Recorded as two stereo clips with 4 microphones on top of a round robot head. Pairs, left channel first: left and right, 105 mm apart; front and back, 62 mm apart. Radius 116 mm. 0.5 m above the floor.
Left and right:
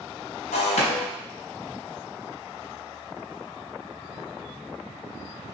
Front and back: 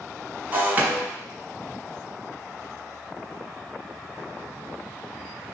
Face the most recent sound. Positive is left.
turn(degrees=115)